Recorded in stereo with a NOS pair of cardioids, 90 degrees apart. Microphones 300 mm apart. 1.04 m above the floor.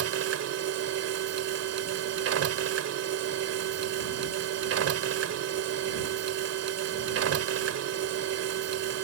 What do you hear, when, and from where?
0.0 s a machine running: 55° right